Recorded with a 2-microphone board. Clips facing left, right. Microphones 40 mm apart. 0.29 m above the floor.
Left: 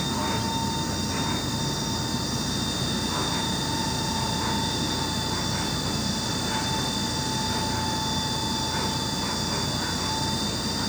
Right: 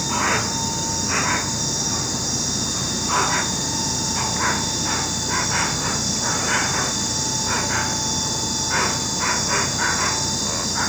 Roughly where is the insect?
Right.